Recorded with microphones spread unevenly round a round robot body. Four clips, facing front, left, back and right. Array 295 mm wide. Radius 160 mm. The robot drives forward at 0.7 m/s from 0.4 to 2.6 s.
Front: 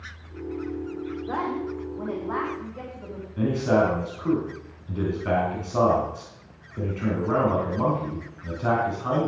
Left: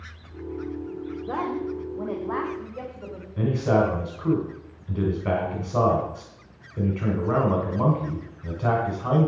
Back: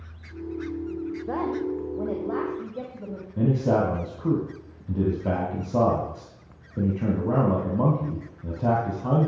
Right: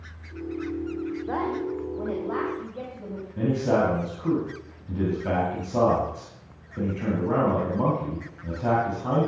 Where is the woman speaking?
160° left, 1.2 m; by 3.3 s 170° left, 2 m.